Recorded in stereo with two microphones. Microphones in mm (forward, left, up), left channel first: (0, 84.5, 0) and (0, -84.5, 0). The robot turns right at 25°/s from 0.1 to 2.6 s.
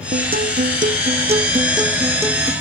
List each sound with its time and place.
0.1 s a guitar: 70° right; by 2.5 s 10° right